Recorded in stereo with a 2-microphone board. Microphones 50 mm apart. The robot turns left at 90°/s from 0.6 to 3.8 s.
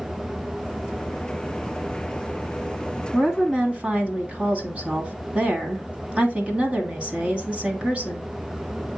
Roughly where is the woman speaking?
Centre.